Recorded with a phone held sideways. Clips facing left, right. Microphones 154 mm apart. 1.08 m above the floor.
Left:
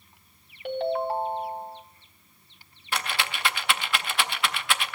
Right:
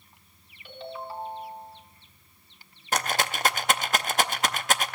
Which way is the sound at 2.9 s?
45° right (ahead or behind).